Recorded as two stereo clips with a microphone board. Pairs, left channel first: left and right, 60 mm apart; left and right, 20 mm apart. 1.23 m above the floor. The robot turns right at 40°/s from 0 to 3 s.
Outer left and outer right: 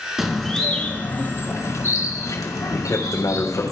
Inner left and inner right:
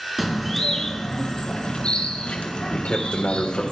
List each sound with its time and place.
0.2 s a bird: 5° right, 4 m; by 3.7 s 105° left, 4 m
2.7 s a man speaking: 55° left (ahead or behind), 5 m; by 3.6 s 65° left (ahead or behind), 5 m